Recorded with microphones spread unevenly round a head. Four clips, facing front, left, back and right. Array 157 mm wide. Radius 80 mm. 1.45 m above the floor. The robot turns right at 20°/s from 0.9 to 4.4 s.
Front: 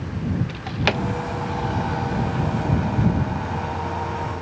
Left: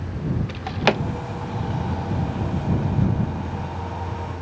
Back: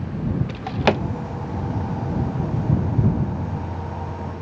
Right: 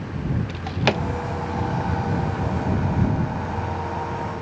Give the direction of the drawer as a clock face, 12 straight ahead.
6 o'clock.